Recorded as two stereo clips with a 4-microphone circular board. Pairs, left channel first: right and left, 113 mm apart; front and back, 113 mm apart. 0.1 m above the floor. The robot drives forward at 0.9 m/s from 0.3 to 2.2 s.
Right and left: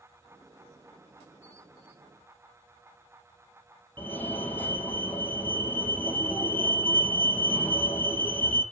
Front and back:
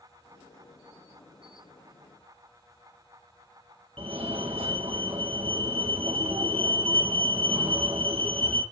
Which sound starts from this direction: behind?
A fire alarm, at 4.0 s.